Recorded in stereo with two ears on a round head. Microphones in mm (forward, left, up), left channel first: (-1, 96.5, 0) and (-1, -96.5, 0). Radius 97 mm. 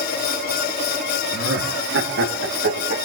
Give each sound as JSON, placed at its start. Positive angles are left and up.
{"t": 1.3, "sound": "laughter", "side_deg": -55, "distance_m": 1.5}